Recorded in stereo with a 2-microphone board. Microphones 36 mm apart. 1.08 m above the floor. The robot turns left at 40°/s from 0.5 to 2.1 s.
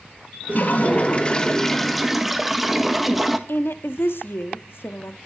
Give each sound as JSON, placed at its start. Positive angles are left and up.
{"t": 0.5, "sound": "a toilet flushing", "azimuth_deg": 60, "distance_m": 1.7}
{"t": 3.5, "sound": "a woman speaking", "side_deg": 75, "distance_m": 1.6}